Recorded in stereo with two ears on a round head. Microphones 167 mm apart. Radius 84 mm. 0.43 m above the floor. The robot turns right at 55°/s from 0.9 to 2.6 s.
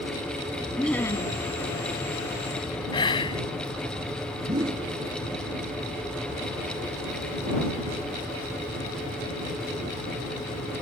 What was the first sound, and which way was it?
Laughter, 5° left (ahead or behind).